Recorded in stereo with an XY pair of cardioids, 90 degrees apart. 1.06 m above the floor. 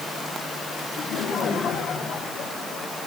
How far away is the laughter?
About 8.5 m.